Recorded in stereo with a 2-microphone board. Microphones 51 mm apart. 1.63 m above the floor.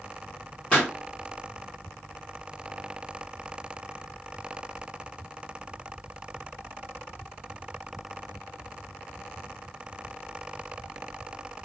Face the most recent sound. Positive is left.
turn(degrees=20)  # may be behind; listen again after turning